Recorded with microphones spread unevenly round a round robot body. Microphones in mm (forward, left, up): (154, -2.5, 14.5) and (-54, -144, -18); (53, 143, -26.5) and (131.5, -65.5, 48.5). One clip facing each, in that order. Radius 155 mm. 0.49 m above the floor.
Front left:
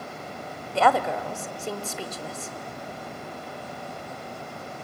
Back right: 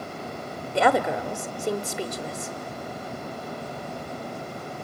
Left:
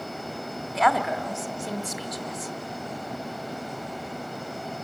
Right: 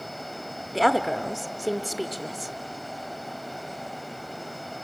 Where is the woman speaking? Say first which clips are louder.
Back right 2 dB, right 3 dB; 130° right, 0.7 m.